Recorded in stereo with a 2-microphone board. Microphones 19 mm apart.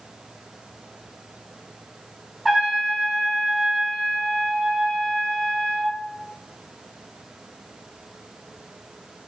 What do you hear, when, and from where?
2.5 s a trumpet: 15° right (ahead or behind), 1.1 m